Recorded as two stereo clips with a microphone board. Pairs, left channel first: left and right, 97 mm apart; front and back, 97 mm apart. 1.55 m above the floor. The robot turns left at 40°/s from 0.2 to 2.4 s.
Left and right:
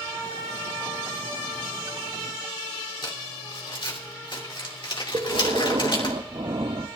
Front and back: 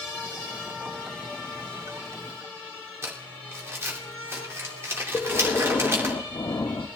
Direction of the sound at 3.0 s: 120° left.